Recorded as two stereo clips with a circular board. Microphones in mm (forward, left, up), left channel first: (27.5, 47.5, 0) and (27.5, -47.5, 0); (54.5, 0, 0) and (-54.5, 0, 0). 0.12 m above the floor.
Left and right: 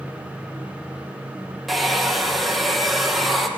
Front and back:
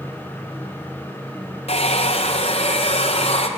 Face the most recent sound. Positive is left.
turn(degrees=0)